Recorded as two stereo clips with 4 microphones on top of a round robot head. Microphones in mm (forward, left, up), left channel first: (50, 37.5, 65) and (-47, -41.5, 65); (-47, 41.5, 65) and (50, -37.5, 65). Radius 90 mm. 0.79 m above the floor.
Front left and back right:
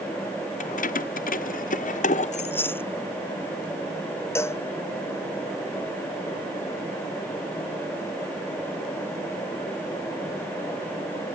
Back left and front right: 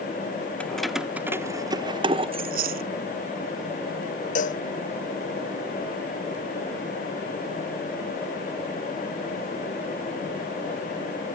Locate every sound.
0.6 s keys jangling: 60° left; by 2.5 s 5° left
2.4 s chewing: 35° right
4.3 s a cowbell: 110° left